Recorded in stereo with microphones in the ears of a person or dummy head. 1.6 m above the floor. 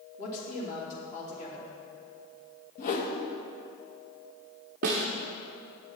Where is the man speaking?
50° left (ahead or behind), 3 m.